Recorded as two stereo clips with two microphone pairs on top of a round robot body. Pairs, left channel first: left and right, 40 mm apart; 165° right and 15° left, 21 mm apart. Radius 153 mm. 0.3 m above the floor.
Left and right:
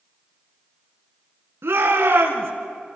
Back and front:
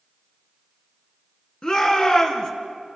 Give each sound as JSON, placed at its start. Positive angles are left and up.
{"t": 1.6, "sound": "a shout", "azimuth_deg": -115, "distance_m": 4.5}